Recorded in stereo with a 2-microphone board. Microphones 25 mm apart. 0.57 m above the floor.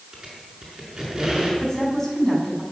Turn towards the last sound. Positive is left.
turn(degrees=15)  # may be behind; listen again after turning